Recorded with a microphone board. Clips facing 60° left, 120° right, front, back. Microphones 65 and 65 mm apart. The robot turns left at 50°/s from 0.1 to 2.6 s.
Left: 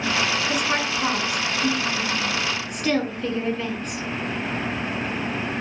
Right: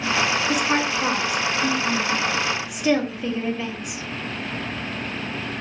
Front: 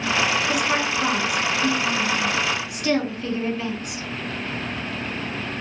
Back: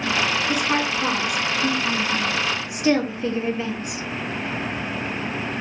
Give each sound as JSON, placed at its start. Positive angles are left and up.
{"t": 0.5, "sound": "a woman speaking", "azimuth_deg": -70, "distance_m": 1.0}